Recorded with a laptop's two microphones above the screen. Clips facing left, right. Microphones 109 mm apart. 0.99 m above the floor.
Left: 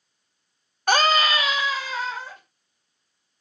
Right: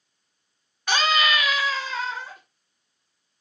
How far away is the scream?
About 0.6 m.